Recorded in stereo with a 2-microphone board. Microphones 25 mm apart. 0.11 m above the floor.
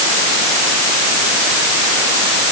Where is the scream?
No scream in this recording.